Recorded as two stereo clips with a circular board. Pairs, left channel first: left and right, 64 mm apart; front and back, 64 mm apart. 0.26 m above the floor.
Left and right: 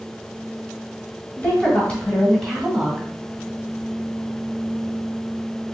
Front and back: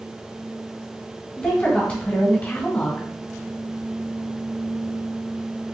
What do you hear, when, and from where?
1.4 s a woman speaking: 55° left, 1.5 m; by 3.1 s 25° right, 1.4 m